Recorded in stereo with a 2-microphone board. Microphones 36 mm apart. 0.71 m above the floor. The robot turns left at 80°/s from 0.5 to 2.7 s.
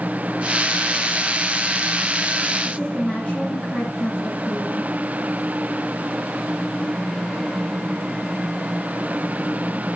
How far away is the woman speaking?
About 7.5 m.